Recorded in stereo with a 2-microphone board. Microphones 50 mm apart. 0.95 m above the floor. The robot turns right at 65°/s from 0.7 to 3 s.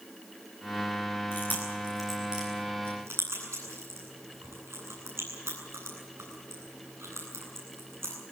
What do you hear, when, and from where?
1.3 s chewing: 50° left (ahead or behind), 9.5 m; by 8.1 s 60° right (ahead or behind), 9.5 m